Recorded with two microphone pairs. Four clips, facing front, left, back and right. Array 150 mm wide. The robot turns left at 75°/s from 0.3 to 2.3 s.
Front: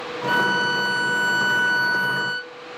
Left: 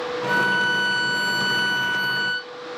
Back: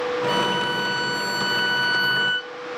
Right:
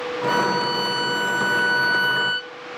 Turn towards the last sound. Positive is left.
turn(degrees=-135)